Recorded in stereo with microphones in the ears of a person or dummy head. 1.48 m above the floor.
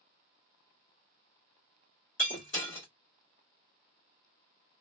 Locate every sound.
2.2 s breaking glass: 45° left (ahead or behind), 1.7 m